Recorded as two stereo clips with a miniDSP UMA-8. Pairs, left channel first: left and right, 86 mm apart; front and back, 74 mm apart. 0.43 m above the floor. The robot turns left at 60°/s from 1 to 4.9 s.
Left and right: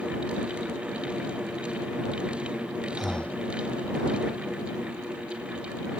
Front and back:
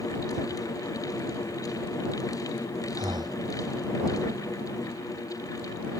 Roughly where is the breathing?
Behind.